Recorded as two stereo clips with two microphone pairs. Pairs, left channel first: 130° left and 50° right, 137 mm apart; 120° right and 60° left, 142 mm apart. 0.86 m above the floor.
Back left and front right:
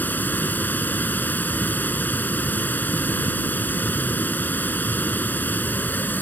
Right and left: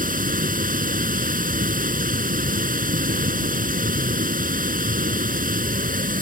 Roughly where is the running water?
Ahead left.